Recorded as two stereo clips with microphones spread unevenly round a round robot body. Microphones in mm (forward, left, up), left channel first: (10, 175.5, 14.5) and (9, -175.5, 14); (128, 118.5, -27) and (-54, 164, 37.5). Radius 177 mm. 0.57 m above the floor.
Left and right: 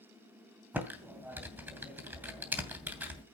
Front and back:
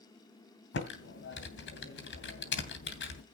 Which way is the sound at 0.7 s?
5° right.